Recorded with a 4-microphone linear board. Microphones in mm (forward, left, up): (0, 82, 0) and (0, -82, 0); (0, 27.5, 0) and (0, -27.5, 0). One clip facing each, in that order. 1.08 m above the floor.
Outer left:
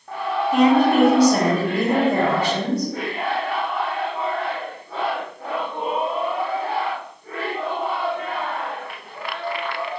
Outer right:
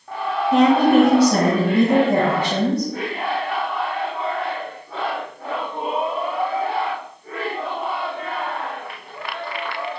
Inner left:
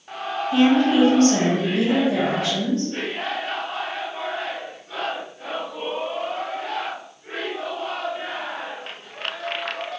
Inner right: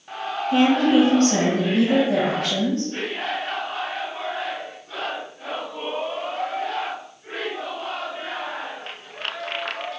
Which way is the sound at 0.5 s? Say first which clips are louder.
Outer right 2 dB, even; 50° right (ahead or behind).